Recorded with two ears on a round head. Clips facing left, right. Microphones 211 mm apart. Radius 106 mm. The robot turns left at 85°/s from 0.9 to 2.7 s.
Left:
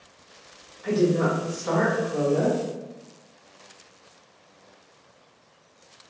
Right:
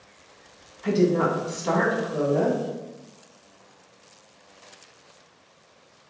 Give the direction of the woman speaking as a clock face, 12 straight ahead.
2 o'clock.